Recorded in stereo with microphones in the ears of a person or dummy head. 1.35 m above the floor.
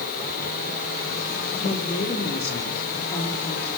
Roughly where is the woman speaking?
Left.